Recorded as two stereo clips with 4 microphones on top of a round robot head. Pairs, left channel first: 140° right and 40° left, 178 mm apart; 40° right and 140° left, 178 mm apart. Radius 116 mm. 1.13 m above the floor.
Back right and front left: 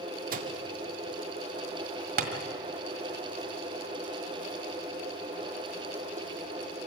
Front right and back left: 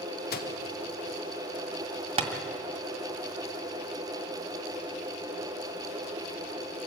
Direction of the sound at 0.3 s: 5° right.